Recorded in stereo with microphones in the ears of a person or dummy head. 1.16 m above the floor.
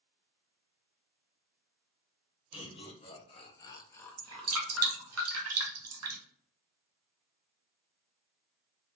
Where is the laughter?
20° left (ahead or behind), 0.9 m; by 5.2 s 5° right (ahead or behind), 0.9 m.